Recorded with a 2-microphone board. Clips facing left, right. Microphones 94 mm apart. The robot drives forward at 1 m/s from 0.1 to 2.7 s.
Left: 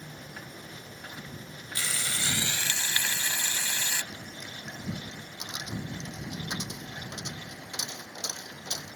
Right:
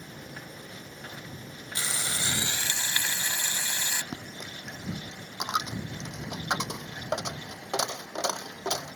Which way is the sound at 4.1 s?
75° right (ahead or behind).